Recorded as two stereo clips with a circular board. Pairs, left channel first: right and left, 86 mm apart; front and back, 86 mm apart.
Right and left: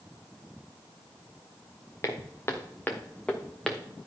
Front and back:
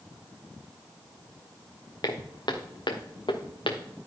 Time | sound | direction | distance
2.0 | footsteps | 35° right | 1.7 m